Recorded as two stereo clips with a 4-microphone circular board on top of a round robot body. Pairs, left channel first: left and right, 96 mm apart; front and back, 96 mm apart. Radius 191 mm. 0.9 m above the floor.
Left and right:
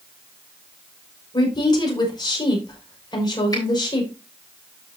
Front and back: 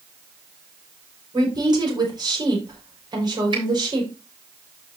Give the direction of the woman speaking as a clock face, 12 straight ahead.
7 o'clock.